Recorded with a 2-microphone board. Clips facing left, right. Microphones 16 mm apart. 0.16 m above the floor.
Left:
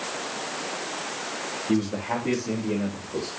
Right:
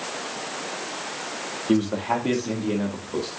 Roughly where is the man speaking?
Right.